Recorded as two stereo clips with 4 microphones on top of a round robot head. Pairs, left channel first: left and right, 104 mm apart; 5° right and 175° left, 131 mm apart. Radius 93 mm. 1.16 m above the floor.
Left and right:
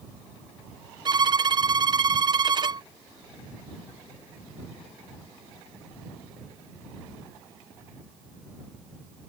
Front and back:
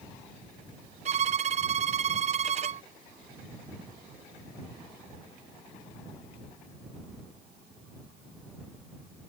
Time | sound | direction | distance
1.1 | a violin | 140° right | ?